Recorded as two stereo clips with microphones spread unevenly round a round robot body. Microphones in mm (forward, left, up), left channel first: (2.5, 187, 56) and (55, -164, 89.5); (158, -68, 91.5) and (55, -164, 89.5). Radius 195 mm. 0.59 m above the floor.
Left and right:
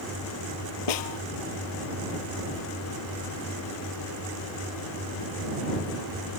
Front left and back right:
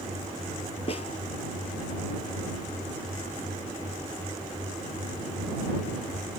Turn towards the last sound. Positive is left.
turn(degrees=110)